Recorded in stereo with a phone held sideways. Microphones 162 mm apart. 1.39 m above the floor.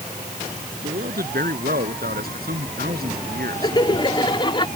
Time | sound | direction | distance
0.8 | a man speaking | 70° right (ahead or behind) | ?
3.6 | laughter | 30° left (ahead or behind) | ?